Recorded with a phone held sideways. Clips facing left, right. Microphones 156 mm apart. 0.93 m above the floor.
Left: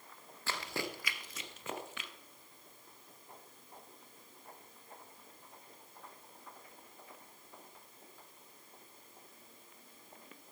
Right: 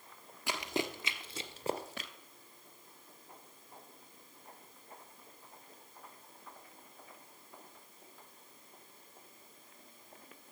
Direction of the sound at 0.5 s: 15° right (ahead or behind).